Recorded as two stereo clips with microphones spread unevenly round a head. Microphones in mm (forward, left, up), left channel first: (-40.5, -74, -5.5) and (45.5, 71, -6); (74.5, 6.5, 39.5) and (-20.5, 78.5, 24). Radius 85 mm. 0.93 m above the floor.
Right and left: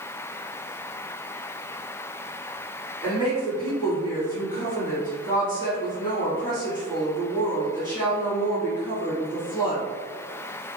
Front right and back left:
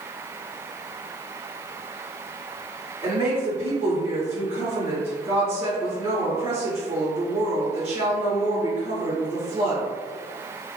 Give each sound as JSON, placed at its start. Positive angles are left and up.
{"t": 3.0, "sound": "a woman speaking", "azimuth_deg": 175, "distance_m": 2.0}